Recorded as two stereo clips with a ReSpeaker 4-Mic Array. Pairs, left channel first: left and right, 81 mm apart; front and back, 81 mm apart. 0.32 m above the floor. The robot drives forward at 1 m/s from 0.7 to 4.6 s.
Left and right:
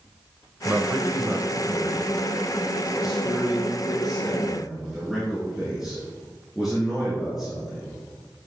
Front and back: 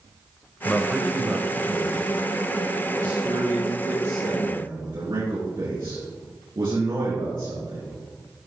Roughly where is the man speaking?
Ahead right.